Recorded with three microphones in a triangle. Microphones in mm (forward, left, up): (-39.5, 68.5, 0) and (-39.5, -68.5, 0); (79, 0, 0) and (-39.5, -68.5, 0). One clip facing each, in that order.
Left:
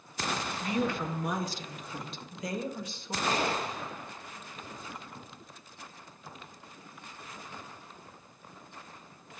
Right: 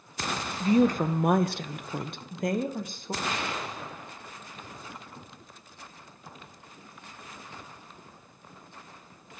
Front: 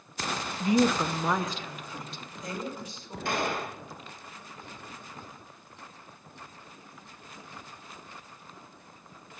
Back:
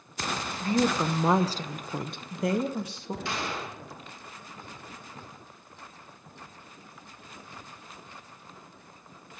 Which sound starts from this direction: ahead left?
A gunshot, at 3.2 s.